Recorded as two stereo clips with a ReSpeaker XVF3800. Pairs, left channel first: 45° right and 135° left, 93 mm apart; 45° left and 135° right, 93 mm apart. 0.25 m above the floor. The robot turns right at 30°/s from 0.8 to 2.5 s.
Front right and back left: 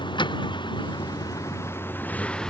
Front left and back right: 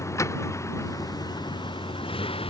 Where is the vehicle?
10° right; by 2.5 s 40° left.